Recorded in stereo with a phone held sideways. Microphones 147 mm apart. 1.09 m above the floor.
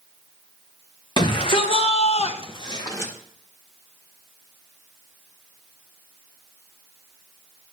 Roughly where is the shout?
Left.